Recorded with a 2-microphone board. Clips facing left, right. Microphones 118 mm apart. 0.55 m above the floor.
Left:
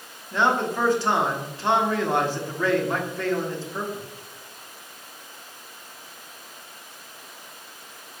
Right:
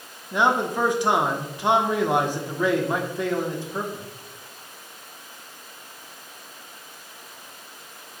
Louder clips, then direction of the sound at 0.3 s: Right 1 dB; 15° right (ahead or behind).